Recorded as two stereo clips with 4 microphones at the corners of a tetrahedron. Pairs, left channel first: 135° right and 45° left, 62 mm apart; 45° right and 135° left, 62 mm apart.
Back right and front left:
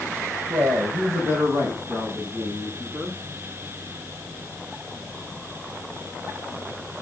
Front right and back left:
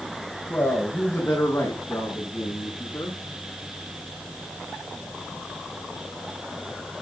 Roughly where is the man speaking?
Ahead.